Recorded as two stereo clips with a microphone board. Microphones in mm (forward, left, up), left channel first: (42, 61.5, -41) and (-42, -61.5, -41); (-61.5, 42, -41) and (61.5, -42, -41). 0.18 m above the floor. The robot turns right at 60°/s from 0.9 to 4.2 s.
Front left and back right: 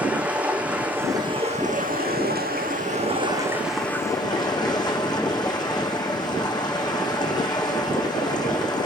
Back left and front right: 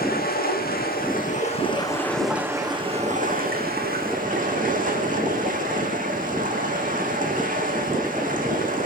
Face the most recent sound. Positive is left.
turn(degrees=-5)